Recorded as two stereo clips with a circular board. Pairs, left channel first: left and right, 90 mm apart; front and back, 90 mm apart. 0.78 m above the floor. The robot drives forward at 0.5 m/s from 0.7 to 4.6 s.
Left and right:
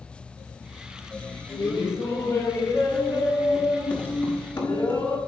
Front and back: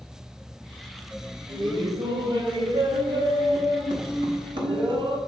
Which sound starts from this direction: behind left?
Laughter, at 1.5 s.